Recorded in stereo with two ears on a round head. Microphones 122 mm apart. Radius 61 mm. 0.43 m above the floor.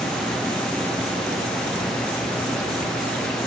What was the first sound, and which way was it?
Only background noise.